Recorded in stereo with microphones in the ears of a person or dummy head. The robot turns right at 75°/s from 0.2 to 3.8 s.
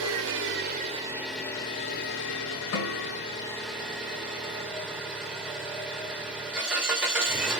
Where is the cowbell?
No cowbell in this recording.